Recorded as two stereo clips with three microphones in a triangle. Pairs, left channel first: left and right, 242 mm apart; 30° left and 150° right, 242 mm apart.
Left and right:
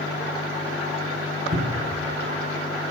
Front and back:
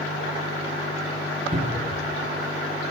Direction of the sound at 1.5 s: 100° right.